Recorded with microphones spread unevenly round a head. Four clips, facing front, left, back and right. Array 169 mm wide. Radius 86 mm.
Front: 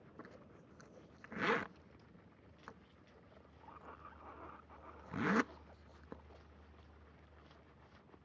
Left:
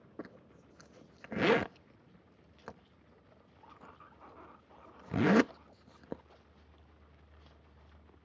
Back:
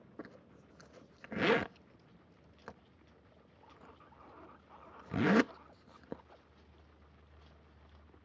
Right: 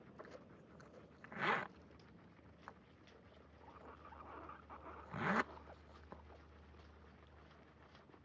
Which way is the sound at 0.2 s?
110° left.